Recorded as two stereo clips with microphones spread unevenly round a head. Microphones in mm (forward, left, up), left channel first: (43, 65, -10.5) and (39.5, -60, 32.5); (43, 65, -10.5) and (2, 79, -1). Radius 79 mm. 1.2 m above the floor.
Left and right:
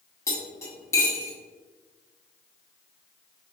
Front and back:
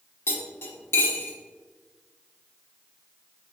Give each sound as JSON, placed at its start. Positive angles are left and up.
{"t": 0.3, "sound": "cutlery clinking", "azimuth_deg": 15, "distance_m": 1.2}